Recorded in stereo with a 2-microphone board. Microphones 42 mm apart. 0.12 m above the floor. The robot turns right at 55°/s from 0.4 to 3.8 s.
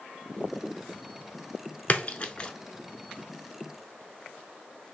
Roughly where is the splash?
Left.